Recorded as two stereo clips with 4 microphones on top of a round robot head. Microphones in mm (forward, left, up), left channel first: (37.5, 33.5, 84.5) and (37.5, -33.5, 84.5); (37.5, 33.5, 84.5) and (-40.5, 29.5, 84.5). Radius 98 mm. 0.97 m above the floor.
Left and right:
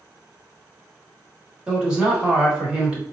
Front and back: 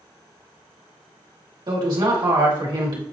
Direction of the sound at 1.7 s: 165° right.